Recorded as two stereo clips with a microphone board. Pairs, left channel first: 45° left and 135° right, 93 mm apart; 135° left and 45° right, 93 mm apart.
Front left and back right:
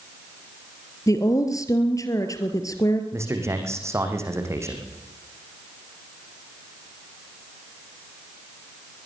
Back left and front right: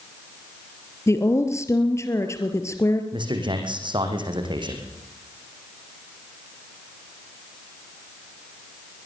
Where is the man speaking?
75° right, 5 m.